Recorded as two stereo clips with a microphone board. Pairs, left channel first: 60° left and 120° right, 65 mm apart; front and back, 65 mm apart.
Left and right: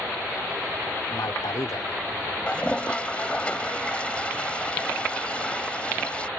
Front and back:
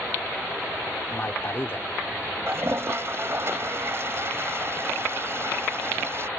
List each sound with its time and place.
1.1 s a man speaking: 50° left
2.5 s a toilet flushing: 130° left